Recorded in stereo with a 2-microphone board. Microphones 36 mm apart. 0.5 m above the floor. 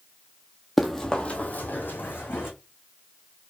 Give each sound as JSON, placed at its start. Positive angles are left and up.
{"t": 0.8, "sound": "running footsteps", "side_deg": 0, "distance_m": 1.1}